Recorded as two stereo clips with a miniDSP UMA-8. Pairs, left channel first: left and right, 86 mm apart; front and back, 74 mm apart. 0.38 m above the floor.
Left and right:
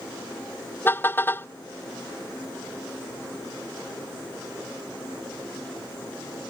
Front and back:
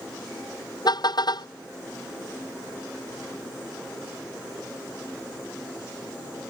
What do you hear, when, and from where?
0.8 s a car horn: 25° left